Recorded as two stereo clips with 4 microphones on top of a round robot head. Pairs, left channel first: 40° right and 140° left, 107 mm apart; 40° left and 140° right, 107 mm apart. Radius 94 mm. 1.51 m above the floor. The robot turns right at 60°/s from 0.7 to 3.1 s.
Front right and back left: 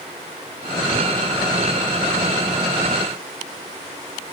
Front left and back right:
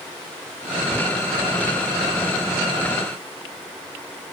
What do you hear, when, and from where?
Only background noise.